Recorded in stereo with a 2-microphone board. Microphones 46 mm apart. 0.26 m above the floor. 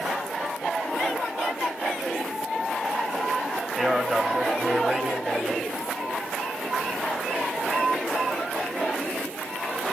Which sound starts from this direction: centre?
A man speaking, at 3.8 s.